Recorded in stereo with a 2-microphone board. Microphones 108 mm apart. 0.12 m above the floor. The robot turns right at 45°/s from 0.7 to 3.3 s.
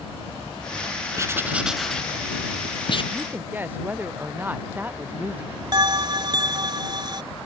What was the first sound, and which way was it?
Writing, 30° right (ahead or behind).